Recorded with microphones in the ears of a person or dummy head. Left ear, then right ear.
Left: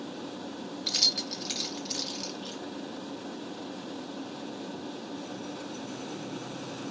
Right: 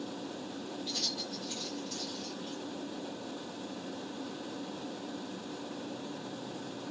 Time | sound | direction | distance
0.9 | keys jangling | 50° left (ahead or behind) | 0.7 m